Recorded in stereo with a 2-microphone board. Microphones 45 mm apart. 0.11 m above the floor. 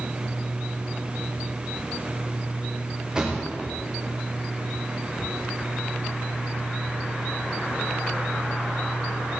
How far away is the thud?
About 8.5 m.